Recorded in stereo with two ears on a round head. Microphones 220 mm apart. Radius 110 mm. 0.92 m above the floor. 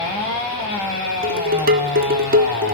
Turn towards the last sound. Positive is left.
turn(degrees=-40)  # may be behind; listen again after turning